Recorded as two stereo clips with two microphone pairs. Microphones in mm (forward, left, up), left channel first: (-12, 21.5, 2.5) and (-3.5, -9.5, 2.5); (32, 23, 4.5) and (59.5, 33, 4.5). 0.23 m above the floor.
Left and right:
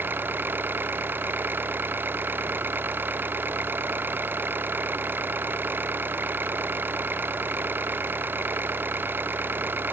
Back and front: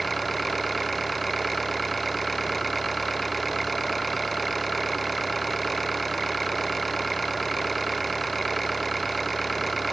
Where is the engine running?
75° right.